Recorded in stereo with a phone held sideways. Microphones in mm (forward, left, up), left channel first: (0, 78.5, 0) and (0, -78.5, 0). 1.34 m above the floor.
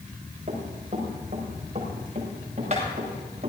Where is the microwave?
No microwave in this recording.